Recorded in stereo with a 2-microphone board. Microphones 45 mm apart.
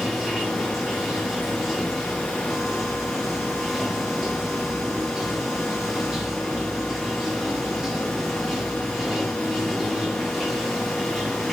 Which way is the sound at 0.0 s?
5° right (ahead or behind).